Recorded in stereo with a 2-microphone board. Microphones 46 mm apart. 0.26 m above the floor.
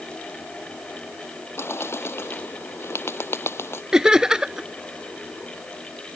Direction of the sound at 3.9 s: 15° right (ahead or behind).